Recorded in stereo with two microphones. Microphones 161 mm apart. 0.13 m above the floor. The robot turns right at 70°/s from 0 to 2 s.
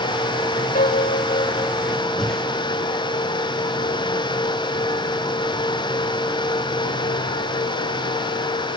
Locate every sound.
0.8 s a piano: 65° left, 2.5 m; by 1.8 s 140° left, 2.5 m
2.2 s breathing: 5° left (ahead or behind), 8.5 m